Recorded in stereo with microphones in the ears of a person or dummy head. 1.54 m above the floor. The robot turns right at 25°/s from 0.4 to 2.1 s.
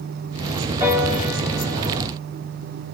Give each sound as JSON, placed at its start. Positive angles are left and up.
{"t": 0.8, "sound": "a piano", "side_deg": -20, "distance_m": 6.5}